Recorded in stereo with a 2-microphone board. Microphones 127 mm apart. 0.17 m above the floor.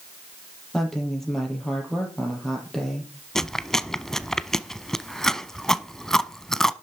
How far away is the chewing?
About 0.7 m.